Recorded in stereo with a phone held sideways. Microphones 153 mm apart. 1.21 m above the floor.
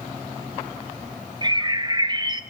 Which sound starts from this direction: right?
A bird, at 1.4 s.